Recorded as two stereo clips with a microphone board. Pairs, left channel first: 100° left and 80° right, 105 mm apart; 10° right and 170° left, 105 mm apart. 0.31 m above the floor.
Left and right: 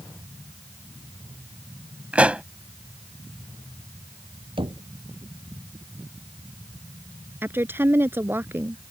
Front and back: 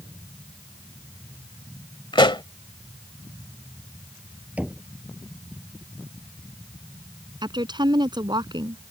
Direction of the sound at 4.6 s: 115° right.